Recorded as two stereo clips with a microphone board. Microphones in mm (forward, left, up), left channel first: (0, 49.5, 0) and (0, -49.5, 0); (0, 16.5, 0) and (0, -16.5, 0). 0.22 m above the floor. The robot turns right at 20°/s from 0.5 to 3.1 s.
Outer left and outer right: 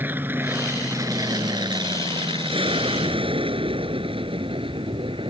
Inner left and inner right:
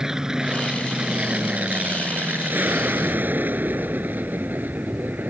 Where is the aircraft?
20° right (ahead or behind); by 5.3 s 65° right (ahead or behind).